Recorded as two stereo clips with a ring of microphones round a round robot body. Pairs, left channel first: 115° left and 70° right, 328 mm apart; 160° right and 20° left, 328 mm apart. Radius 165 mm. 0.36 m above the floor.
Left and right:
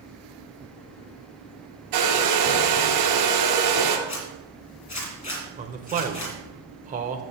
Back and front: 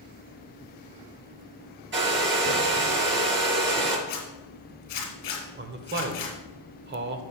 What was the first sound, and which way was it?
A hair dryer, 35° right.